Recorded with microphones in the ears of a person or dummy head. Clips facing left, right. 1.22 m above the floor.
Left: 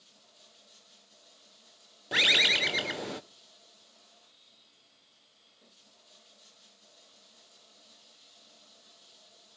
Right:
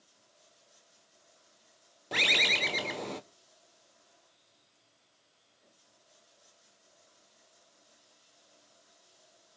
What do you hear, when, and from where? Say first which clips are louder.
0.0 s running water: left 3 dB; 80° left, 10 m
2.1 s a bird: left 1 dB; 5° left (ahead or behind), 0.7 m